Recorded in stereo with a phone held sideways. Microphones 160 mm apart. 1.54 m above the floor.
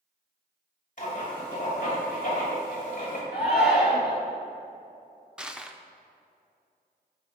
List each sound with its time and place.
1.0 s writing: 55° left (ahead or behind), 2.5 m
3.3 s a shout: 70° left (ahead or behind), 2.5 m
5.4 s crushing: 5° right (ahead or behind), 0.5 m